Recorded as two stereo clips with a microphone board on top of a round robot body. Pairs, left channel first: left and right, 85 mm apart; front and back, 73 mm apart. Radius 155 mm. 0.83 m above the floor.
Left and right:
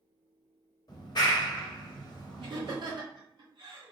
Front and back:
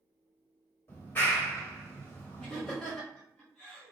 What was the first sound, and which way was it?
A clap, 55° left.